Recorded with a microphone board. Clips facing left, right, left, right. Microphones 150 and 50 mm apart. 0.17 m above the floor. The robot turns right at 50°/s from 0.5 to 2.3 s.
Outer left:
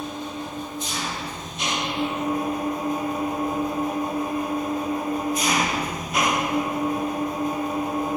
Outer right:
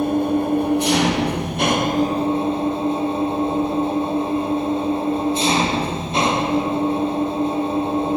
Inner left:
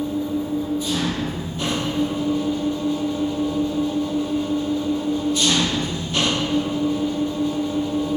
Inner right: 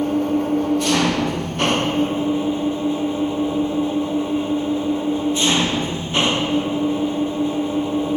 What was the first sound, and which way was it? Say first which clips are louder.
An engine running: outer right 13 dB, inner right 5 dB; 120° right.